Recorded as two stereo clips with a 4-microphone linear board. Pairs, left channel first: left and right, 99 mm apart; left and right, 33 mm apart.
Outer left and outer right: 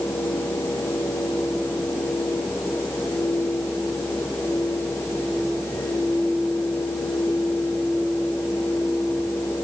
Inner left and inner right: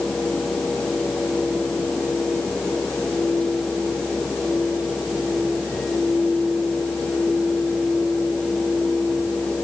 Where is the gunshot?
I don't hear a gunshot.